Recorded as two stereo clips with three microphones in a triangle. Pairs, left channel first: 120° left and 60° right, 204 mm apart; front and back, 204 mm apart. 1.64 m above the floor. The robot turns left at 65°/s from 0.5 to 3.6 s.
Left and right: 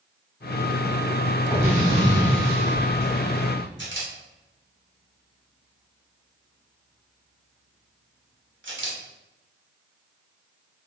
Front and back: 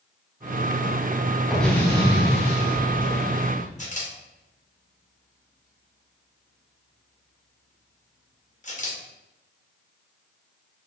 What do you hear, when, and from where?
1.5 s an explosion: 95° left, 1.5 m; by 3.7 s 40° right, 1.5 m
3.8 s a camera shutter: 50° right, 1.0 m